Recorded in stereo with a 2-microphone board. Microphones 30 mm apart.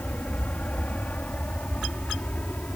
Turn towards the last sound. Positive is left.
turn(degrees=55)  # may be behind; listen again after turning